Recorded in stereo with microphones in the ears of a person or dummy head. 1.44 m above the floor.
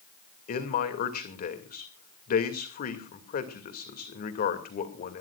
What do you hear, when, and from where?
0.5 s a man speaking: 50° left (ahead or behind), 2.5 m